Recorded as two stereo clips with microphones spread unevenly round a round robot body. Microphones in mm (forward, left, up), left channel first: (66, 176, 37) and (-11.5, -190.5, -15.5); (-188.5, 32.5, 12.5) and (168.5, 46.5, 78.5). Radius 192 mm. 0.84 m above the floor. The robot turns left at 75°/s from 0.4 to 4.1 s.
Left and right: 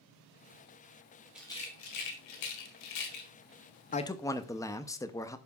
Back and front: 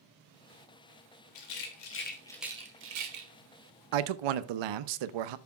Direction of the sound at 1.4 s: 170° left.